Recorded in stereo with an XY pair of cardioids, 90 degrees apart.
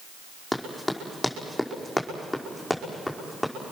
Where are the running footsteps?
5° left, 4.5 m; by 3.5 s straight ahead, 6 m.